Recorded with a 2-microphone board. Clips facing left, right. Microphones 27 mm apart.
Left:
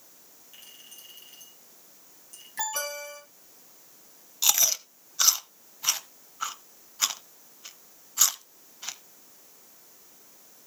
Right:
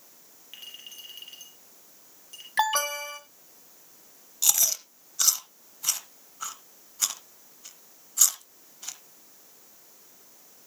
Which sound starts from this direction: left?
Chewing, at 4.4 s.